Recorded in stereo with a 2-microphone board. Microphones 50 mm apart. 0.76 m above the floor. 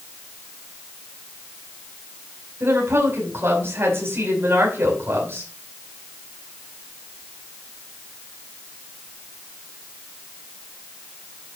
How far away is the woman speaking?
About 5.5 m.